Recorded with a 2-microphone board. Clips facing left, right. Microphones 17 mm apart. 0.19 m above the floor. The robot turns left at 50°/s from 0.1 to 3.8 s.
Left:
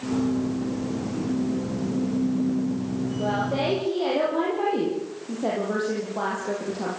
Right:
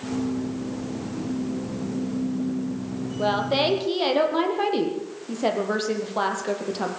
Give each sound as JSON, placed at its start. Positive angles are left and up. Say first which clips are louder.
{"t": 3.2, "sound": "a woman speaking", "louder": "right 5 dB", "azimuth_deg": -95, "distance_m": 6.5}